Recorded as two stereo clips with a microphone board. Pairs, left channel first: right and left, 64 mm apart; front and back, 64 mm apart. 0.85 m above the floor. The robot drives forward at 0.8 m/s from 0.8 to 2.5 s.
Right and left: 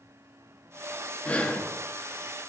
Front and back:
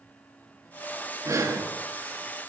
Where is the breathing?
155° right, 0.7 m; by 1.6 s 160° right, 1.0 m.